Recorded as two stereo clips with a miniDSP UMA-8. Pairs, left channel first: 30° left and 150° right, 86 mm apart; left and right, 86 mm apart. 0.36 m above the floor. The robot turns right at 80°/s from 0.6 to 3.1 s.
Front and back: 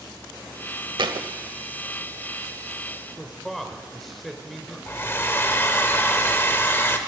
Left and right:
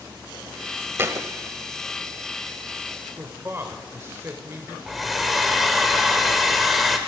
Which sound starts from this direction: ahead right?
A man speaking, at 3.2 s.